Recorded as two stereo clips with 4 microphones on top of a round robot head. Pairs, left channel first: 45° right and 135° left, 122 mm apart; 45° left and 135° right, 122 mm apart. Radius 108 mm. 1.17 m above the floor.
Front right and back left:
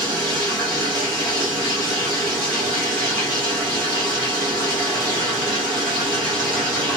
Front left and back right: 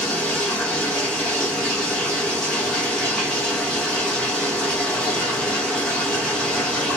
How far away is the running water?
About 0.7 m.